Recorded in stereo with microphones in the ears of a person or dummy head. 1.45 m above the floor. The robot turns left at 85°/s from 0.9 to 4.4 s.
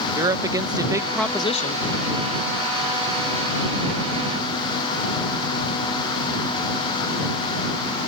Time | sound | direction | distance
0.1 | a woman speaking | 160° right | ?